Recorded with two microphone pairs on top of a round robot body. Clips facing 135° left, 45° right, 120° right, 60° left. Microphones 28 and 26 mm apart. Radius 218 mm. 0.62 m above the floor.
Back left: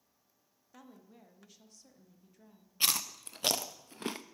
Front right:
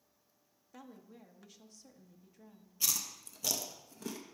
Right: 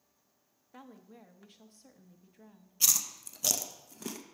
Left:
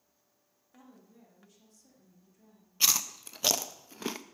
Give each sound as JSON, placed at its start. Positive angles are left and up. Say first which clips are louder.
{"t": 0.7, "sound": "a woman speaking", "louder": "front right 2 dB, right 5 dB", "azimuth_deg": -130, "distance_m": 1.0}
{"t": 2.8, "sound": "chewing", "louder": "back left 4 dB, left 2 dB", "azimuth_deg": 100, "distance_m": 0.5}